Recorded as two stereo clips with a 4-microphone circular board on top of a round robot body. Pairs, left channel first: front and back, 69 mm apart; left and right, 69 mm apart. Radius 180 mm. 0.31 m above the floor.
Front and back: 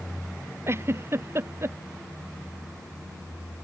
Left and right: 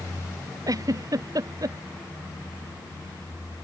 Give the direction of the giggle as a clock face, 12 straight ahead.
4 o'clock.